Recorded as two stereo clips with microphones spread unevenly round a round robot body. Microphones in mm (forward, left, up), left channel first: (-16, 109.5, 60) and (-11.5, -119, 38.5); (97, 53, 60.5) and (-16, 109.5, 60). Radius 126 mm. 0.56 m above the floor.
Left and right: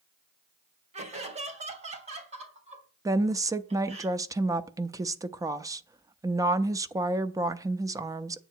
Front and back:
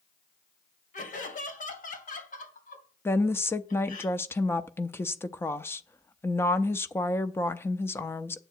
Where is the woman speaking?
60° right, 0.6 m.